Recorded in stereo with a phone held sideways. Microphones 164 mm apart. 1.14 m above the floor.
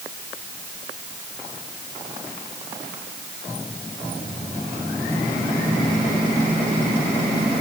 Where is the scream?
I don't hear a scream.